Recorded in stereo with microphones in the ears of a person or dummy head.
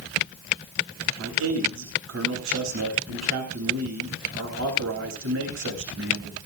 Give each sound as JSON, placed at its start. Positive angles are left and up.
{"t": 1.2, "sound": "a man speaking", "side_deg": -70, "distance_m": 8.5}